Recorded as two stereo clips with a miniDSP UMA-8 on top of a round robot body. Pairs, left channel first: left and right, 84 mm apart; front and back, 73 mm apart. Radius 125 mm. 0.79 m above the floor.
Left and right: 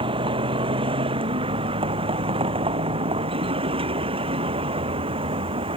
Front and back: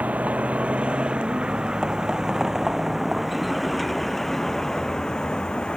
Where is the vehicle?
110° right; by 5.8 s 80° right.